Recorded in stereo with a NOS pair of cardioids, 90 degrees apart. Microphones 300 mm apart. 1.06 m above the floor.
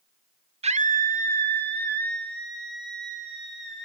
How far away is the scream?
About 1.1 m.